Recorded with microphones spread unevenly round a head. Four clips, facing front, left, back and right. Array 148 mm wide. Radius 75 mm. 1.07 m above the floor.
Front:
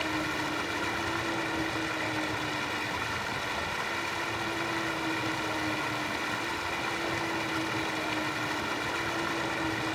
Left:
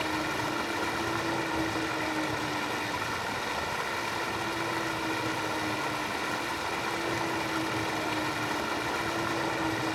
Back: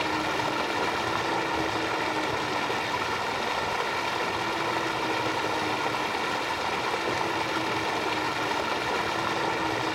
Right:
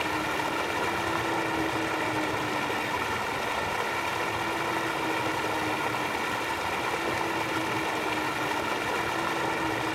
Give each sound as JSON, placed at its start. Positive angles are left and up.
{"t": 0.0, "sound": "running water", "azimuth_deg": -155, "distance_m": 1.2}